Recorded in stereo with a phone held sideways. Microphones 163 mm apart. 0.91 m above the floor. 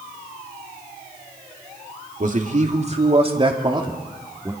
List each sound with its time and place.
2.2 s a man speaking: 55° right (ahead or behind), 2 m; by 4.5 s 20° right (ahead or behind), 2.5 m